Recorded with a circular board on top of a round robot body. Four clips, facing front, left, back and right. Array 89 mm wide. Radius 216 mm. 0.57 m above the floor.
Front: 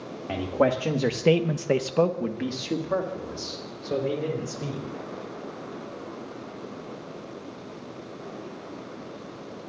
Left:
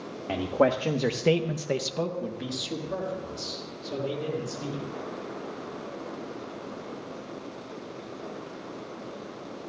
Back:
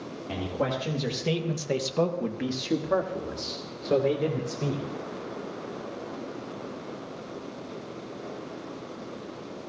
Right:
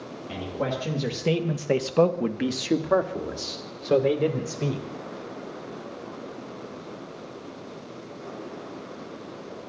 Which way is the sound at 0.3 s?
50° left.